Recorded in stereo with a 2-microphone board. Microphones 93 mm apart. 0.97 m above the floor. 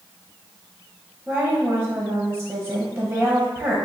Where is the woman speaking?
15° right (ahead or behind), 0.7 m.